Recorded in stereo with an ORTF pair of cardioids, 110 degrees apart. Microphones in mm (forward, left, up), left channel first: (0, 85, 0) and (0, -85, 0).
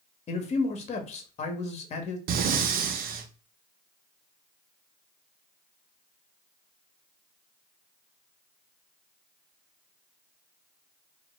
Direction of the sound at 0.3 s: 40° left.